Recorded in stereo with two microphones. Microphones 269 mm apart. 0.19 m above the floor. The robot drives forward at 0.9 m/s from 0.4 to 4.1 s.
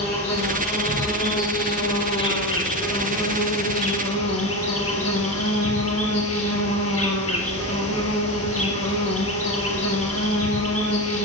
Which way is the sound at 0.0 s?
25° left (ahead or behind).